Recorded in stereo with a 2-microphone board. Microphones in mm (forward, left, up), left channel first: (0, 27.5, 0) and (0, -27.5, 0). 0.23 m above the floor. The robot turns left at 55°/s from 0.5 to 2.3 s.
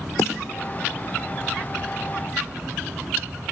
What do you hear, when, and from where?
0.2 s a snare drum: 70° left (ahead or behind), 4 m